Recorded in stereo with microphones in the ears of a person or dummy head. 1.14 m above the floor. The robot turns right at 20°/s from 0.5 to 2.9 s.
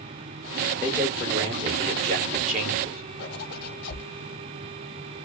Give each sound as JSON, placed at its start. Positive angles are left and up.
{"t": 0.8, "sound": "a man speaking", "azimuth_deg": -175, "distance_m": 1.4}
{"t": 3.2, "sound": "a zipper", "side_deg": 50, "distance_m": 1.0}